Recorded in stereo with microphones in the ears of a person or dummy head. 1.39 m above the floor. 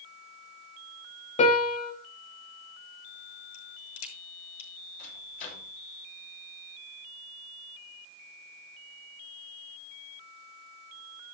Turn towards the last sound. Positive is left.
turn(degrees=45)  # may be behind; listen again after turning